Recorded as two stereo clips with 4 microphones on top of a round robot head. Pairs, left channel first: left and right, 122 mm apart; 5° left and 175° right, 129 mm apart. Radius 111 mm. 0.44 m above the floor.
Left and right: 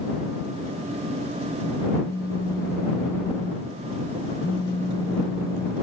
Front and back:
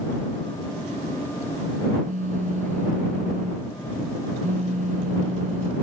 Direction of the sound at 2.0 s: 160° left.